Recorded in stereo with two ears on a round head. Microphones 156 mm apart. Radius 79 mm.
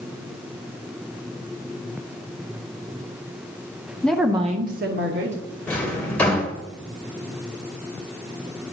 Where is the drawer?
10° left (ahead or behind), 1.4 m.